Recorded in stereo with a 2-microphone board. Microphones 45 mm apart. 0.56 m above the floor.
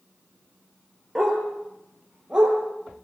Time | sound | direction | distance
1.1 | a dog barking | 10° right (ahead or behind) | 5 m